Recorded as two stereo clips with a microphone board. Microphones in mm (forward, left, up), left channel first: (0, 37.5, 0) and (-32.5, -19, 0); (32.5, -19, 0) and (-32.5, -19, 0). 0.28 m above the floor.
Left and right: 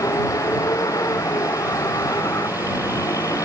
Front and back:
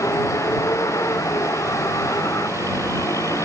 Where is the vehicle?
35° left.